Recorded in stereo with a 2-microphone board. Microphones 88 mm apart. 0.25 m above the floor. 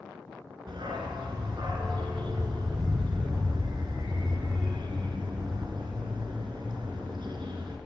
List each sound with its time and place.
0.7 s a dog barking: 70° right (ahead or behind), 1.1 m